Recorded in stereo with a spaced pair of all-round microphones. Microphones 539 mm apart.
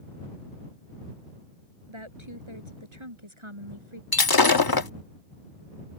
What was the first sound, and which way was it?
A woman speaking, 55° right (ahead or behind).